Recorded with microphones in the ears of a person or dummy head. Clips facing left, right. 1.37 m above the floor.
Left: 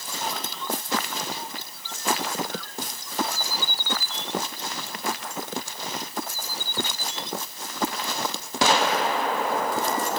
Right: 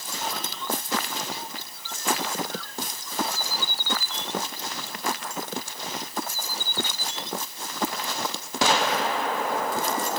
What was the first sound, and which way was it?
Only background noise.